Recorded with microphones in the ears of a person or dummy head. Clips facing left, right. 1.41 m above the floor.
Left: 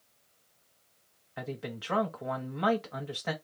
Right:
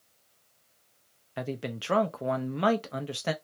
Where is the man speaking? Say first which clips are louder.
Right 4 dB; 40° right (ahead or behind), 0.6 m.